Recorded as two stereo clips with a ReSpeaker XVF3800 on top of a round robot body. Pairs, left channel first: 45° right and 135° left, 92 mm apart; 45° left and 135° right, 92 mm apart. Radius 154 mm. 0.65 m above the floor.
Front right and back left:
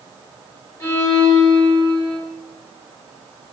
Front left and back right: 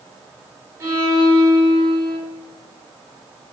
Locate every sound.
0.8 s a violin: 95° right, 1.4 m